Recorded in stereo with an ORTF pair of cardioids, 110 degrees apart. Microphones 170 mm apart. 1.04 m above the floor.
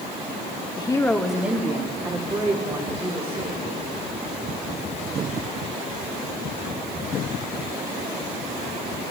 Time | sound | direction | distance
0.8 | a woman speaking | 30° left | 1.1 m